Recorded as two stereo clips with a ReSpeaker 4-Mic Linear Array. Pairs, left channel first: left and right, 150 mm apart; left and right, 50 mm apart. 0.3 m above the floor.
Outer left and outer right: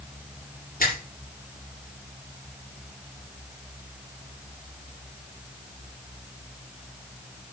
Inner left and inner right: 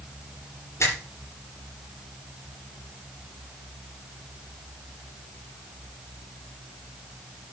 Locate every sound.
0.8 s a finger snap: 65° left (ahead or behind), 6.5 m